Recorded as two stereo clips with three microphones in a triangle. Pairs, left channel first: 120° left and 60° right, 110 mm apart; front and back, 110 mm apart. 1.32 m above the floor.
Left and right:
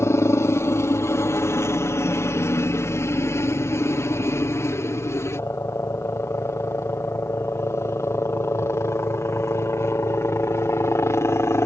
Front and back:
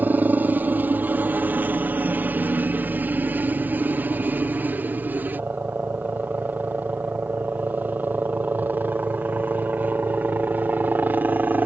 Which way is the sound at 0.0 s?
130° left.